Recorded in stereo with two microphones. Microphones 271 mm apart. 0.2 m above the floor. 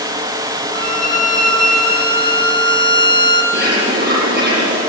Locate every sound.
0.7 s a violin: 15° left (ahead or behind), 2.5 m
3.5 s a bird: 40° right (ahead or behind), 8 m